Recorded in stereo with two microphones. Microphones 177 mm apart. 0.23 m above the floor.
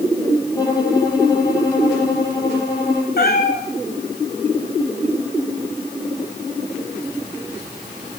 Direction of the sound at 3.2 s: 65° left (ahead or behind).